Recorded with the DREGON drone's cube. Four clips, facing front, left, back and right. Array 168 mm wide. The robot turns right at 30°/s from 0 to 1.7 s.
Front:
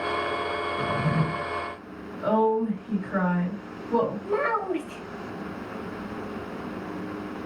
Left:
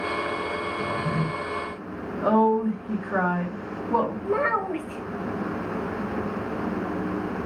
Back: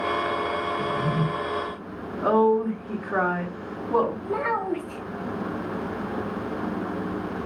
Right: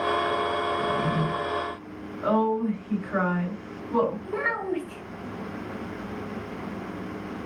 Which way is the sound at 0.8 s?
5° right.